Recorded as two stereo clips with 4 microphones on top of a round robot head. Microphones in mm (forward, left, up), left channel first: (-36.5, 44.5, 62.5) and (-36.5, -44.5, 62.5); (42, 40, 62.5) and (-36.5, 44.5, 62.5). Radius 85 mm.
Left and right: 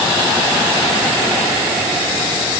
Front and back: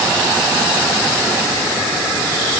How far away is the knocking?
I don't hear knocking.